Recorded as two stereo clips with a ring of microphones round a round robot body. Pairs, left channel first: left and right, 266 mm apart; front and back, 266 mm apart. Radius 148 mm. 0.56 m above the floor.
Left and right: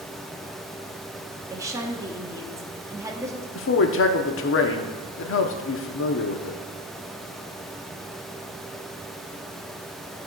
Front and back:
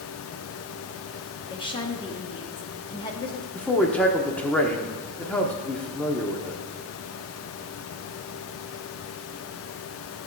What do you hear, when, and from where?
1.5 s a woman speaking: 35° right, 1.0 m
3.5 s a man speaking: 85° left, 1.0 m